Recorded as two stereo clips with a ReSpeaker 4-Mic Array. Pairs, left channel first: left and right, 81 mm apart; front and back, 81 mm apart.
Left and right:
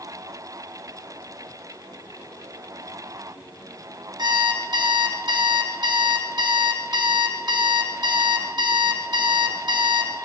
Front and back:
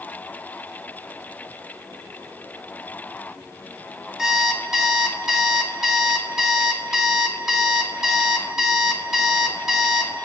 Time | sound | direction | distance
4.2 | an alarm clock | 95° right | 0.7 m